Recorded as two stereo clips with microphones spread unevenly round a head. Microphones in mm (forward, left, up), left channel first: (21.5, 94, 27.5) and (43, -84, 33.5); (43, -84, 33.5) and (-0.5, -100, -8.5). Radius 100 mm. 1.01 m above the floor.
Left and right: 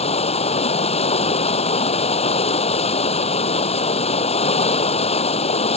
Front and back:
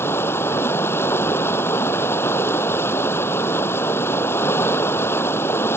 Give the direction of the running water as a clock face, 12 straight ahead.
11 o'clock.